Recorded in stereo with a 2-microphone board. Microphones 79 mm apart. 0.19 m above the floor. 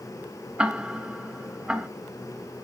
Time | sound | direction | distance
0.6 | ticking | 15° right (ahead or behind) | 1.0 m